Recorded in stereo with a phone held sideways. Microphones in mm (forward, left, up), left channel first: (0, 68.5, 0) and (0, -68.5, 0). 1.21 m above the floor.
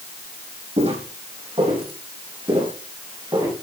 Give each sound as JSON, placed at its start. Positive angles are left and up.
{"t": 0.8, "sound": "footsteps", "side_deg": -50, "distance_m": 3.5}